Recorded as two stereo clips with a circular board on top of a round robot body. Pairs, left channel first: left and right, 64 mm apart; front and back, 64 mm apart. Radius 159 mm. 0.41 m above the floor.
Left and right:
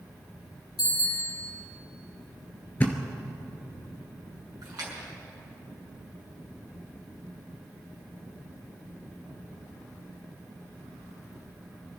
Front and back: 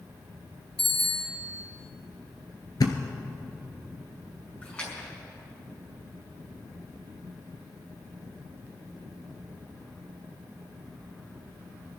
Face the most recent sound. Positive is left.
turn(degrees=-70)